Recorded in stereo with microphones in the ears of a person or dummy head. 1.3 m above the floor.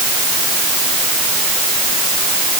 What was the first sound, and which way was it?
Only background noise.